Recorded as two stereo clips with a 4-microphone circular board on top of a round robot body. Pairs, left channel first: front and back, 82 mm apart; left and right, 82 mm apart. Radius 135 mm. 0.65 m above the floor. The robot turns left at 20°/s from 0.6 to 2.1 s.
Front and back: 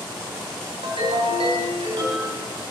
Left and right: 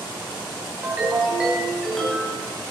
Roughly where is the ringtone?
Behind.